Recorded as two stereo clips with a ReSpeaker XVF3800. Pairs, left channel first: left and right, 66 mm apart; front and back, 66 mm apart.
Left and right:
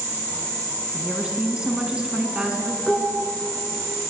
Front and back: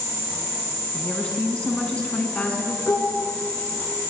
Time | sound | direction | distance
0.9 | a woman speaking | 40° right | 1.2 m
2.9 | dishes clattering | straight ahead | 1.4 m